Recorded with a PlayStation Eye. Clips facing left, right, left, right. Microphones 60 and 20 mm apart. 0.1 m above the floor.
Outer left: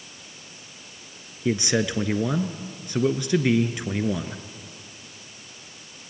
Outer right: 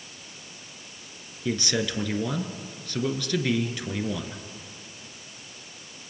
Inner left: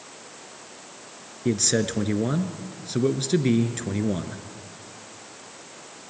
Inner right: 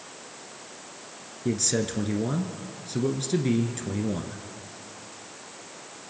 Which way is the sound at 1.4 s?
20° left (ahead or behind).